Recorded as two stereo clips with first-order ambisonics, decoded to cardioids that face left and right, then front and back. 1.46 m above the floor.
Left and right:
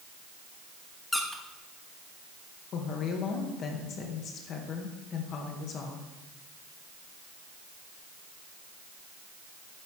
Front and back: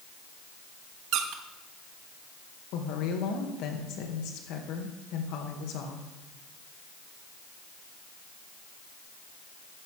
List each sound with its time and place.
1.1 s a squeak: 175° left, 1.0 m
2.7 s a woman speaking: 35° left, 2.0 m